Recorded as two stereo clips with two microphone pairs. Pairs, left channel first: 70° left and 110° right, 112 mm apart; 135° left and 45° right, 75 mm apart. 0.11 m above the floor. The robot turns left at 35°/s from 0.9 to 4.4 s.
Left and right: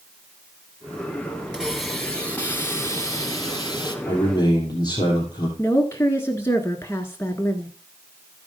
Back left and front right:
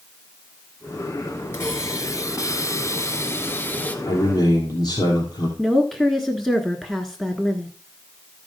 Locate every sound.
1.5 s a hiss: 170° left, 1.8 m; by 4.0 s 85° left, 1.8 m
4.0 s a man speaking: 130° left, 3 m; by 5.5 s 120° left, 3 m
5.6 s a woman speaking: 60° left, 1.1 m